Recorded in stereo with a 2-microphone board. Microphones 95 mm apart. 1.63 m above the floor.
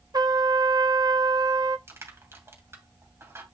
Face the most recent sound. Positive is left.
turn(degrees=-30)  # may be behind; listen again after turning